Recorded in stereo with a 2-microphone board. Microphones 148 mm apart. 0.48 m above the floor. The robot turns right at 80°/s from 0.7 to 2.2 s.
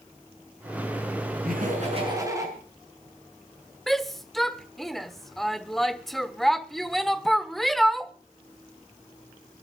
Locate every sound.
1.4 s laughter: 85° right, 6.5 m; by 2.5 s 25° right, 6.5 m
3.9 s a shout: centre (ahead or behind), 1.2 m